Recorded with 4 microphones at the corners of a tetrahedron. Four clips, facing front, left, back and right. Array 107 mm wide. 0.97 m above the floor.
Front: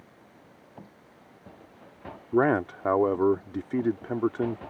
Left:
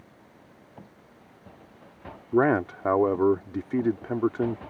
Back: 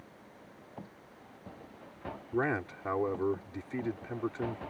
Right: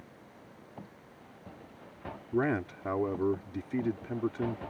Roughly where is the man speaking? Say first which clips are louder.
Left 8 dB, front 9 dB; ahead left.